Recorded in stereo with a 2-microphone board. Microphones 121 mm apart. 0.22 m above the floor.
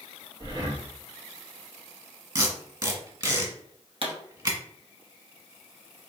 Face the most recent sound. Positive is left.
turn(degrees=-55)  # may be behind; listen again after turning